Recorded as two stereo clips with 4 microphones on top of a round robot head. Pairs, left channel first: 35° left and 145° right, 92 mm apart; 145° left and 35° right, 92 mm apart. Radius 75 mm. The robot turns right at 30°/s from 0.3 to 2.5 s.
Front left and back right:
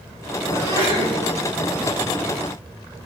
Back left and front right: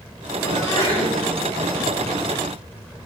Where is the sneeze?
165° right, 10 m; by 1.1 s 150° right, 10 m.